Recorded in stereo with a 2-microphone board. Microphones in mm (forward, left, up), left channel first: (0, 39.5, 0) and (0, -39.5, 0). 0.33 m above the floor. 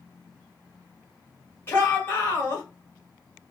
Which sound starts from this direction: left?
A shout, at 1.7 s.